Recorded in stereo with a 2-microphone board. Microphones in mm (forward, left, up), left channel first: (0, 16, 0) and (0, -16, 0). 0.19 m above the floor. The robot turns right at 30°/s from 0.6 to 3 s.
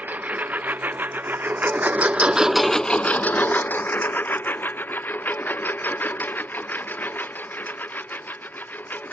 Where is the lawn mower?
60° right (ahead or behind); by 9.1 s 70° left (ahead or behind).